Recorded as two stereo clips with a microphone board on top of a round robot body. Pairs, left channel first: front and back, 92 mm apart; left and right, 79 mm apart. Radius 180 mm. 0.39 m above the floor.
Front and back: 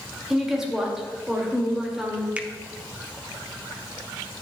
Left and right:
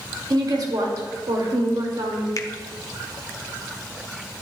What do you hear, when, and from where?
0.3 s a woman speaking: 95° right, 2 m
2.4 s a finger snap: 110° left, 1.0 m